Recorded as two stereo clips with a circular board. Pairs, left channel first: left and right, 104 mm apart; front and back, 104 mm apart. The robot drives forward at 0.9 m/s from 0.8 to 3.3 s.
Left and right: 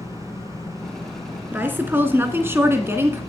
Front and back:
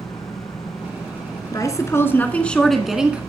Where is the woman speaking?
30° right, 2 m; by 3.2 s 120° right, 1.7 m.